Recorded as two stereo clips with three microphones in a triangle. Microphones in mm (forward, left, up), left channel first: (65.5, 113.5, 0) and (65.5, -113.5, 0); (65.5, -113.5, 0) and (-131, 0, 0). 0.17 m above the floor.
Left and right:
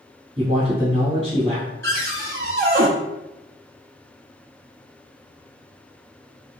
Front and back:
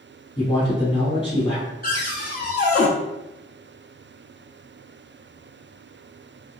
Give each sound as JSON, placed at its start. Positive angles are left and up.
{"t": 0.4, "sound": "a man speaking", "azimuth_deg": -65, "distance_m": 1.1}
{"t": 1.8, "sound": "a cupboard door", "azimuth_deg": -70, "distance_m": 0.9}